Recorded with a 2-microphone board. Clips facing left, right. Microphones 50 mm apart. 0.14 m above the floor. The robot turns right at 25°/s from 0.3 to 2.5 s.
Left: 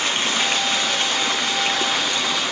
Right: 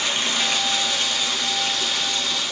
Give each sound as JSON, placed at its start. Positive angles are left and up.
{"t": 0.0, "sound": "running water", "azimuth_deg": 30, "distance_m": 1.6}